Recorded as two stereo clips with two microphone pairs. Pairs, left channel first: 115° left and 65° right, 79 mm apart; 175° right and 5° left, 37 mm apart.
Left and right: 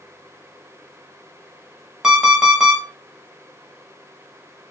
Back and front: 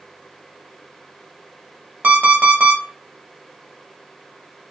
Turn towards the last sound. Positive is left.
turn(degrees=15)